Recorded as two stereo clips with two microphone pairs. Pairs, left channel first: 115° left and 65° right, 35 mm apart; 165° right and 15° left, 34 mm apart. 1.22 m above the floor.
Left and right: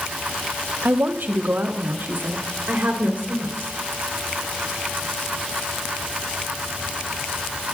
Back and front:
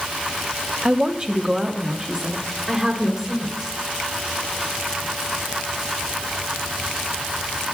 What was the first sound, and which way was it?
A woman speaking, 45° right.